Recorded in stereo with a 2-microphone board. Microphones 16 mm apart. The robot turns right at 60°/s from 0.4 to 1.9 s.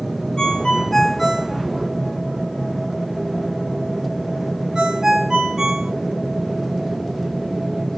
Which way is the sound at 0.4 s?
50° left (ahead or behind).